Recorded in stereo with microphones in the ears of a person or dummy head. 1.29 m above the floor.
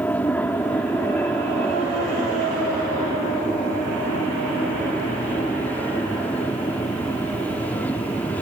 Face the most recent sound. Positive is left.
turn(degrees=10)  # may be behind; listen again after turning